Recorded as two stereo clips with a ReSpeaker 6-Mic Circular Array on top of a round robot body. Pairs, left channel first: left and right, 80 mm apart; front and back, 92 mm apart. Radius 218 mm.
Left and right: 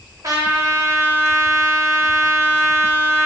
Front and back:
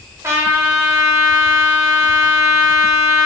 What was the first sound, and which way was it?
A trumpet, 125° right.